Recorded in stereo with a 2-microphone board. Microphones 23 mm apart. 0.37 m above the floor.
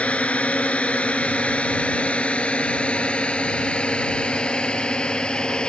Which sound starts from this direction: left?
A drone, at 0.0 s.